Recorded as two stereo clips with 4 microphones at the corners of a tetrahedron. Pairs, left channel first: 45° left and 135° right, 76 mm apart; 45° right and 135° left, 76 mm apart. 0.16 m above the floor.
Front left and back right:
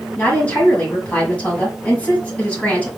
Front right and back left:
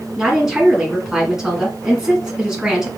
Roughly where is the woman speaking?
Ahead left.